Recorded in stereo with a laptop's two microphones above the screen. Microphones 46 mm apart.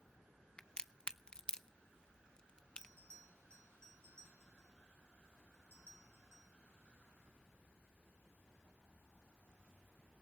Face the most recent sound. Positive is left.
turn(degrees=-80)